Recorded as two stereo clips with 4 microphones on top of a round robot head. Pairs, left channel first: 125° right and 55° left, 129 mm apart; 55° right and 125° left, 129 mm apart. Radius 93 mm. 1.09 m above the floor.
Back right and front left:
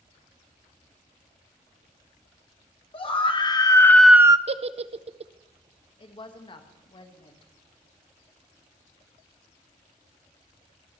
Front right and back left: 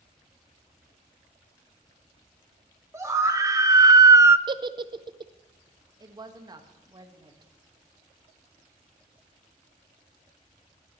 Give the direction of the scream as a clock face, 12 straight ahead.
6 o'clock.